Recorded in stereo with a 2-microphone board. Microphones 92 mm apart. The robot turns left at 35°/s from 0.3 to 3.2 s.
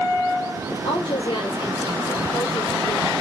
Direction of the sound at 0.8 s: 95° left.